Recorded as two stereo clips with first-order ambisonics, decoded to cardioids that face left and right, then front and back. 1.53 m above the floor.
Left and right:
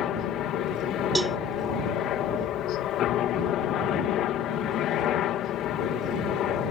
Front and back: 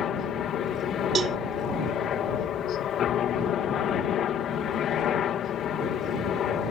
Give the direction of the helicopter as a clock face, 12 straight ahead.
10 o'clock.